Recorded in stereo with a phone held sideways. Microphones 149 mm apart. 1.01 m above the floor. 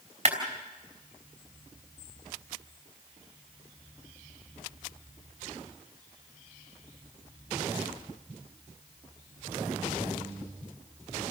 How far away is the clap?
About 4.5 m.